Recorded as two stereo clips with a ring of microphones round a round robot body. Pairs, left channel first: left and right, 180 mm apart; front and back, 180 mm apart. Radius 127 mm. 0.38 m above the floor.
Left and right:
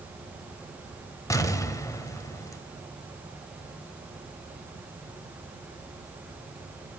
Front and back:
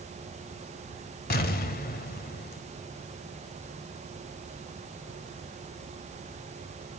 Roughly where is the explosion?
Ahead.